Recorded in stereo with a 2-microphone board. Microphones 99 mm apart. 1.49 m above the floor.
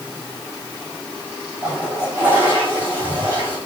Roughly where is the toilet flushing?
Centre.